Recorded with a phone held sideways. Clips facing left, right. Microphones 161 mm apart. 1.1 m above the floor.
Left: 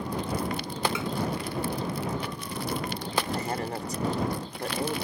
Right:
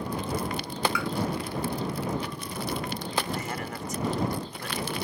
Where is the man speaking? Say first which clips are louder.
Left 3 dB; 35° left (ahead or behind).